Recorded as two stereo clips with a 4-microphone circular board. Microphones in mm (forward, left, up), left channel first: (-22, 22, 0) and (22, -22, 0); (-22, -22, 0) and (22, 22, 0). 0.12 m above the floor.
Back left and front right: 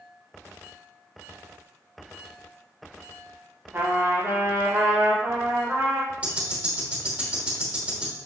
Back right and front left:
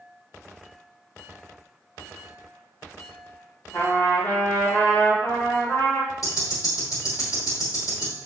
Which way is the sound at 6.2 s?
110° right.